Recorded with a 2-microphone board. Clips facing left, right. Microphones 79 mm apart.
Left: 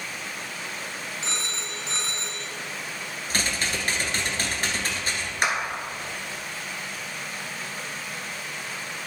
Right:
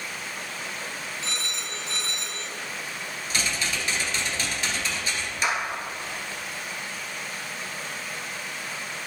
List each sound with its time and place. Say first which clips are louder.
1.2 s a phone ringing: left 1 dB; 25° left (ahead or behind), 0.9 m
3.3 s typing on a keyboard: left 1 dB; 50° left (ahead or behind), 1.3 m
5.4 s a clap: left 1 dB; 55° left (ahead or behind), 1.8 m